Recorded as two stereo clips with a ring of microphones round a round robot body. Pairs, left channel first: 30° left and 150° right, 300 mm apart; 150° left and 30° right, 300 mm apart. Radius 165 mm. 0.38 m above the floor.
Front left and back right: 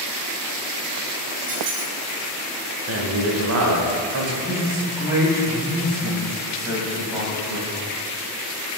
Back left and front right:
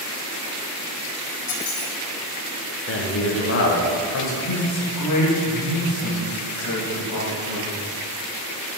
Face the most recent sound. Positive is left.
turn(degrees=130)